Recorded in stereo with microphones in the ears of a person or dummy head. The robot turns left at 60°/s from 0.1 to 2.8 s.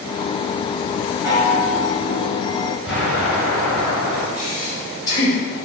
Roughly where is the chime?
Behind.